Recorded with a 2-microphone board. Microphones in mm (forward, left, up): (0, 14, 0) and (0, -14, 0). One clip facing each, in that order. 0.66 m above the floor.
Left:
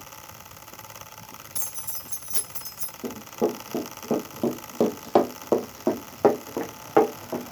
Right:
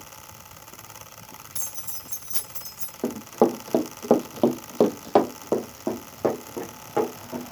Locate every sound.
1.6 s keys jangling: centre (ahead or behind), 2.5 m
3.0 s running footsteps: 70° right (ahead or behind), 1.7 m; by 7.5 s 35° left (ahead or behind), 2.5 m